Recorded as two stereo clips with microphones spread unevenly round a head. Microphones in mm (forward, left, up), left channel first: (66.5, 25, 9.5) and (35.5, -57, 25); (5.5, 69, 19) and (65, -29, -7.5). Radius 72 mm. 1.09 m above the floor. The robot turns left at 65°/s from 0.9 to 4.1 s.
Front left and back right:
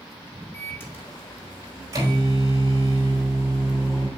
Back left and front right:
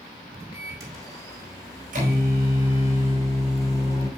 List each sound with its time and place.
0.5 s a microwave: straight ahead, 4.5 m; by 4.1 s 155° left, 4.5 m